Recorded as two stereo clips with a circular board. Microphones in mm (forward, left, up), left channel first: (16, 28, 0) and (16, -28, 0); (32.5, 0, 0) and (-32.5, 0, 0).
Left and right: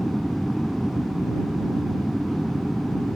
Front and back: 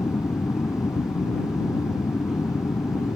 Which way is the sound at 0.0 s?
Straight ahead.